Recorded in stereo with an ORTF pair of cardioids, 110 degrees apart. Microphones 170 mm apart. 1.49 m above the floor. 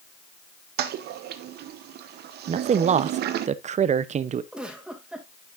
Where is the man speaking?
40° right, 0.8 m.